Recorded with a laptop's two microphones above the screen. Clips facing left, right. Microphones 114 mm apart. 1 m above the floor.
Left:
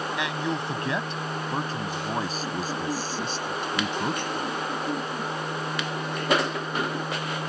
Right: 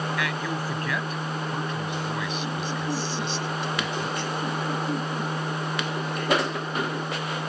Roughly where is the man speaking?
Left.